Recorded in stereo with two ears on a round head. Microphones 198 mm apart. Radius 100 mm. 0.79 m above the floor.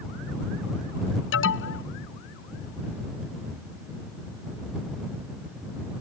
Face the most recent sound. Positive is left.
turn(degrees=65)  # may be behind; listen again after turning